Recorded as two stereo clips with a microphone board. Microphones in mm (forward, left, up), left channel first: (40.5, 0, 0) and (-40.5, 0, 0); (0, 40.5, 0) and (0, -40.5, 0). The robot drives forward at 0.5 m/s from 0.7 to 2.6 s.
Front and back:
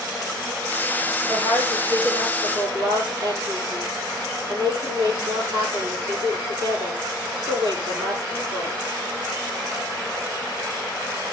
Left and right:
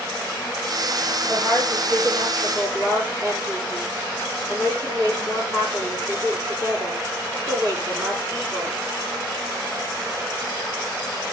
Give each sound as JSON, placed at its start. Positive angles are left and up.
{"t": 1.3, "sound": "a woman speaking", "azimuth_deg": -140, "distance_m": 8.0}